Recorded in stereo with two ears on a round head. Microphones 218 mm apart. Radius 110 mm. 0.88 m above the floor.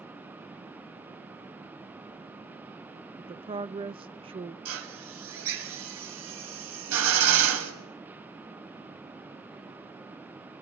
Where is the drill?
65° right (ahead or behind), 5.5 m.